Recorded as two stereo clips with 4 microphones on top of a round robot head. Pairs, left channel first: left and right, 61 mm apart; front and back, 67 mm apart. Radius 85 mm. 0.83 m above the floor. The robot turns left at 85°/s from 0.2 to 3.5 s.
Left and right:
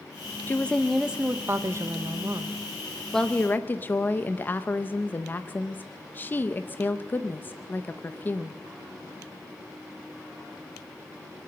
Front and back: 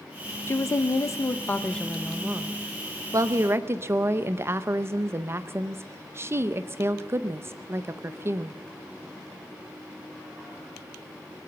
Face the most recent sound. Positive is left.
turn(degrees=140)